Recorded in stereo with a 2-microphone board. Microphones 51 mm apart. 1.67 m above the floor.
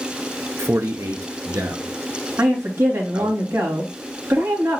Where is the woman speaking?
70° right (ahead or behind), 3.5 m.